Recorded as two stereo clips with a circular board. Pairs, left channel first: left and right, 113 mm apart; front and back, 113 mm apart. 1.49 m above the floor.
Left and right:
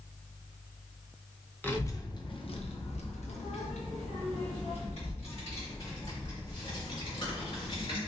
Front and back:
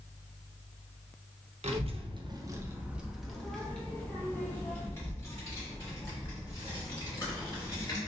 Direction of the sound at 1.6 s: 165° left.